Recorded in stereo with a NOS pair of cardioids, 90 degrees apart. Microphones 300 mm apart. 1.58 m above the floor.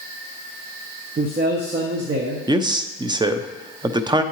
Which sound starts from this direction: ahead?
A man speaking, at 2.5 s.